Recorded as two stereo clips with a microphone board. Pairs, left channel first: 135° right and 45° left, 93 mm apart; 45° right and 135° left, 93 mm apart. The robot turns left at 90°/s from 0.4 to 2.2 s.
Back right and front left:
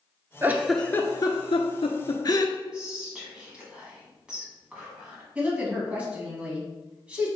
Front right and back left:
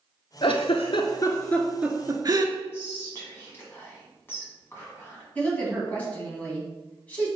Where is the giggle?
20° right, 0.6 m; by 2.5 s straight behind, 0.6 m.